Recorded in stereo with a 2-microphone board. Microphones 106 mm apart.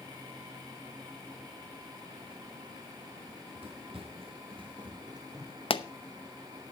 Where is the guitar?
I don't hear a guitar.